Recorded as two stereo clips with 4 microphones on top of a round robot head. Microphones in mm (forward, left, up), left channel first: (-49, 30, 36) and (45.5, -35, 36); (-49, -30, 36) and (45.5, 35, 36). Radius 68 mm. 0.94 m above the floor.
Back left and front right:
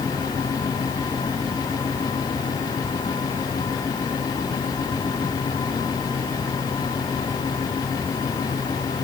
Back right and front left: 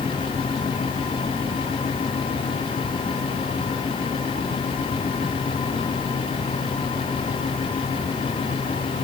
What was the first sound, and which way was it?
Only background noise.